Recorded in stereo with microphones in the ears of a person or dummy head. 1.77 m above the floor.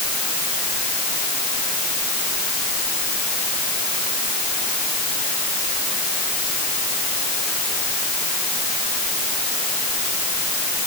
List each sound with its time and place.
Only background noise.